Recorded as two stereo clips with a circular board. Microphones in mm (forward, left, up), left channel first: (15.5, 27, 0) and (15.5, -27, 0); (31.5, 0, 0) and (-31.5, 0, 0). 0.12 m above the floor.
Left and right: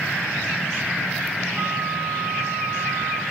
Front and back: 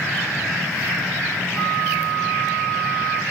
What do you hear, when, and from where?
1.5 s a flute: 55° right, 3.5 m